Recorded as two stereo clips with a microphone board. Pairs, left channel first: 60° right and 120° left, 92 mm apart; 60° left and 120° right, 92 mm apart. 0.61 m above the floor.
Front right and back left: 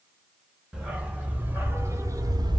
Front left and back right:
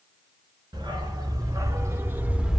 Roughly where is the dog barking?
Behind.